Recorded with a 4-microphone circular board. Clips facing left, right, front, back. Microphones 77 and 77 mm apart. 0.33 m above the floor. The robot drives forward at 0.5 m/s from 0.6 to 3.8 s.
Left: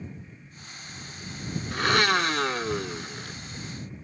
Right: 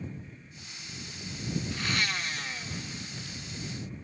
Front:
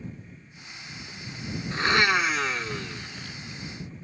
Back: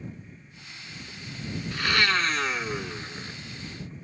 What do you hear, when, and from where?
1.7 s a blender: 60° left; by 3.4 s 125° left